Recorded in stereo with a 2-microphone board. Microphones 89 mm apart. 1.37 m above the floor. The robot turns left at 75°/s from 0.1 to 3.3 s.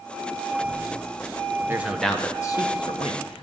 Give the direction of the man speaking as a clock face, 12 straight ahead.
5 o'clock.